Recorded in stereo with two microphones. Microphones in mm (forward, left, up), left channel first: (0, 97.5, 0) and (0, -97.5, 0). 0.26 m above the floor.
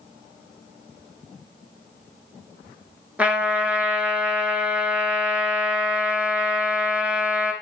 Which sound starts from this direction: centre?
A trumpet, at 3.2 s.